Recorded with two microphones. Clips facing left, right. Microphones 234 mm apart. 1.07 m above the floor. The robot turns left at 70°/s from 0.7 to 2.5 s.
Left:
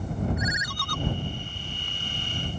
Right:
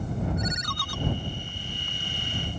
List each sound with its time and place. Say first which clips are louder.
0.4 s a ringtone: even; 5° left (ahead or behind); by 1.0 s 10° right (ahead or behind)